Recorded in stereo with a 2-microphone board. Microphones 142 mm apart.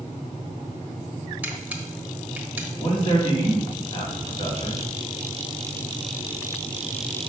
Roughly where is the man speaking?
Left.